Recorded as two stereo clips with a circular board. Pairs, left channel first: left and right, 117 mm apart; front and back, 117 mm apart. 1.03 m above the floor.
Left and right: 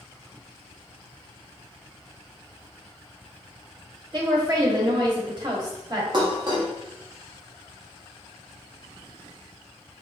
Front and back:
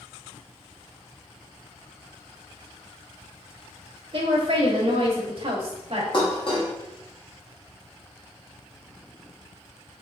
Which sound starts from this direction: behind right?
A woman speaking, at 4.1 s.